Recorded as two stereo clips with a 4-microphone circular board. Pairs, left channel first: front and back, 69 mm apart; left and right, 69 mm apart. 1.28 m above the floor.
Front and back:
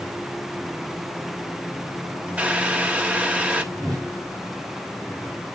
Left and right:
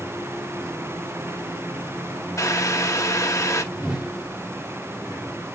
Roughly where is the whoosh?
Behind.